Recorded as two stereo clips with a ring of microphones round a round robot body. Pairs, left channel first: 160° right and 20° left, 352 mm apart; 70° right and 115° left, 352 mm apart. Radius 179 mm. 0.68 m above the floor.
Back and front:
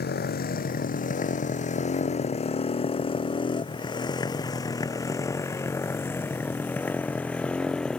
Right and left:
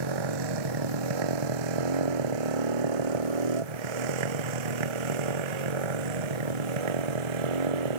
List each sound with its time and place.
0.0 s a motorcycle: 135° left; by 8.0 s 115° left